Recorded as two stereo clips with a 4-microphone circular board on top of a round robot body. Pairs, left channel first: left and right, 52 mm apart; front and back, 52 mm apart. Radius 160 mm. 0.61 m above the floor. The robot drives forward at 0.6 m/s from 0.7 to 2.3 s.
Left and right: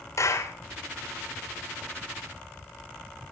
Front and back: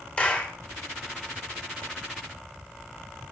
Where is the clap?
70° left, 3 m.